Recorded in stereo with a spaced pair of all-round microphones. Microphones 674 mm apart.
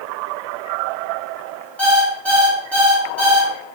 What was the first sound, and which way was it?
An alarm clock, centre (ahead or behind).